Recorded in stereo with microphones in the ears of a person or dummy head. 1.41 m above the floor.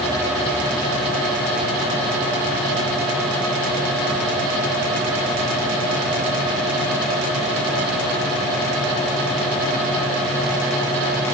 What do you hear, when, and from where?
Only background noise.